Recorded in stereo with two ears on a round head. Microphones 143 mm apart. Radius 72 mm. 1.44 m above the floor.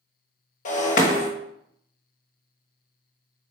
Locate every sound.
0.7 s breaking glass: 50° left (ahead or behind), 1.1 m